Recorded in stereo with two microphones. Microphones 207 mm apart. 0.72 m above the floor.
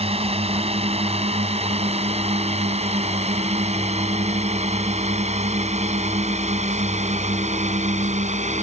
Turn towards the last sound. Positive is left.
turn(degrees=-35)  # may be behind; listen again after turning